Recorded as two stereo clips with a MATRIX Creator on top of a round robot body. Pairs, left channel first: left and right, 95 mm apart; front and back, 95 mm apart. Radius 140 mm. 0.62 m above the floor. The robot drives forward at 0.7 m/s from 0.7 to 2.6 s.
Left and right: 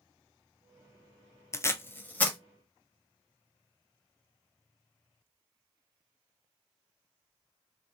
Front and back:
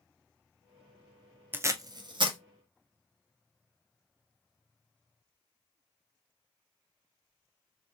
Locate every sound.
1.5 s tape being pulled: 125° left, 0.6 m; by 2.4 s 165° left, 0.9 m